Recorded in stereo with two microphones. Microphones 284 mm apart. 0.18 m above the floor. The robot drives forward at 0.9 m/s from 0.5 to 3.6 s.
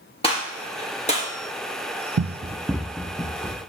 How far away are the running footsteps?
About 0.5 m.